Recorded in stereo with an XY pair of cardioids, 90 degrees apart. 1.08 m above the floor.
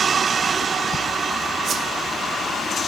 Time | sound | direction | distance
1.6 | a whoosh | 60° right | 2 m